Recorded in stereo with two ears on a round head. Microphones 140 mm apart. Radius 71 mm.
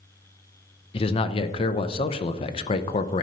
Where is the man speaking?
35° left (ahead or behind), 0.5 m.